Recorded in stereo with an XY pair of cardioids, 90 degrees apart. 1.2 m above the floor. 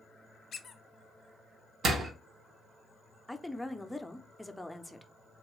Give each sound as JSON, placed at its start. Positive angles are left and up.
{"t": 0.5, "sound": "a squeak", "azimuth_deg": 55, "distance_m": 0.6}
{"t": 1.8, "sound": "a door slam", "azimuth_deg": -65, "distance_m": 0.8}
{"t": 3.3, "sound": "a woman speaking", "azimuth_deg": 5, "distance_m": 0.5}